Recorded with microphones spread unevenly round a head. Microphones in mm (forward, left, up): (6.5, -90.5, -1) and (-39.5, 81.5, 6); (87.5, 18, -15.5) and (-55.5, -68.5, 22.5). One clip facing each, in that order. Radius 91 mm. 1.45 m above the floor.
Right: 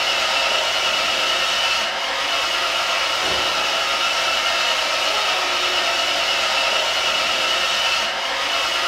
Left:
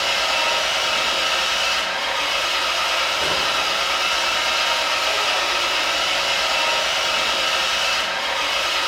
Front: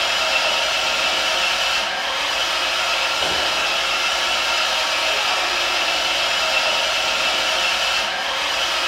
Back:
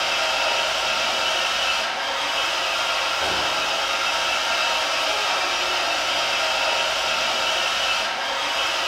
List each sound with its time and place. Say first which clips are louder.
0.0 s an engine running: even, front 1 dB; 105° left, 1.0 m